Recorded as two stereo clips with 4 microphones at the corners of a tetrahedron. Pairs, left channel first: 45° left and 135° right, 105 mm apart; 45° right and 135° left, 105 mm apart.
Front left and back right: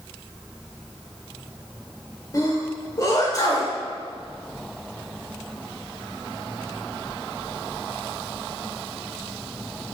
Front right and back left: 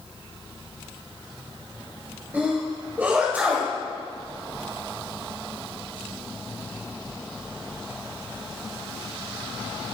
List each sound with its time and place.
2.3 s a sneeze: 70° left, 1.5 m